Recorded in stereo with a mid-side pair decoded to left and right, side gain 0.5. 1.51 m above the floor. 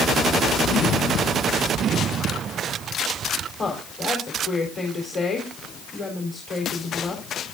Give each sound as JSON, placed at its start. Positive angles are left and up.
{"t": 3.6, "sound": "a woman speaking", "azimuth_deg": 35, "distance_m": 4.5}